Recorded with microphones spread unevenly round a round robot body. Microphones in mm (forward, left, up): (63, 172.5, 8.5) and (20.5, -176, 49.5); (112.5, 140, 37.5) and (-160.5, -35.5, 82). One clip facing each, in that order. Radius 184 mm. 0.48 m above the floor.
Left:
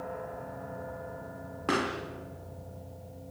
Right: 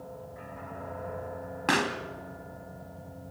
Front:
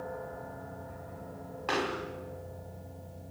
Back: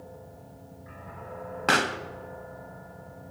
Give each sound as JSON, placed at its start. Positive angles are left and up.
{"t": 1.7, "sound": "a pop", "azimuth_deg": -165, "distance_m": 1.5}